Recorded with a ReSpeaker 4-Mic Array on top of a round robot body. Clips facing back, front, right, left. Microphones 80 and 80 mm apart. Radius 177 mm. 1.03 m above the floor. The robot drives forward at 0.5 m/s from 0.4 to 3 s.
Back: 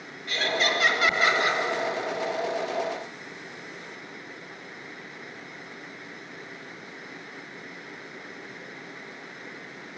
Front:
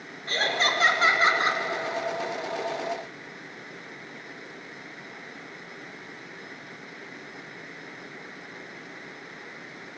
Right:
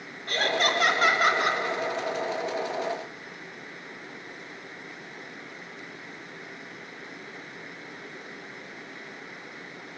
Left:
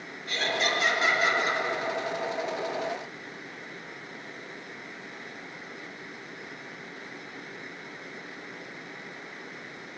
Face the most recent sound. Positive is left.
turn(degrees=-85)